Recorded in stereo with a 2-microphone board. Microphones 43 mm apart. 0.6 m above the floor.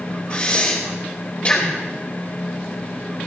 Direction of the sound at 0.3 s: 25° left (ahead or behind).